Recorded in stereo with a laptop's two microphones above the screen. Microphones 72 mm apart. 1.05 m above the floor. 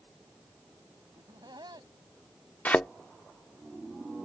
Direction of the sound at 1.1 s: 80° right.